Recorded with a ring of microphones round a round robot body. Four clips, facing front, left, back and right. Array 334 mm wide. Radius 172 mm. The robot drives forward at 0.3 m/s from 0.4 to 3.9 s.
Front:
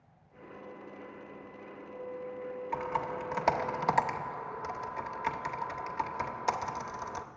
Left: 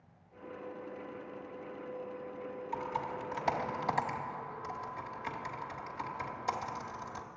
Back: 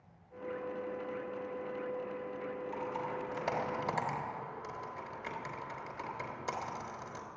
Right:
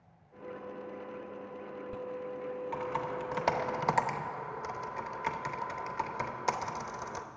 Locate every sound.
2.7 s typing on a keyboard: 30° right, 1.2 m; by 7.2 s 45° right, 1.0 m